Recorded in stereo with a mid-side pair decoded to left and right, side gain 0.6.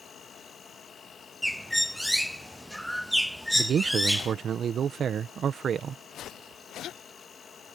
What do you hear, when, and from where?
0.0 s an insect: 35° left
1.4 s a bird: straight ahead
3.5 s a man speaking: 40° right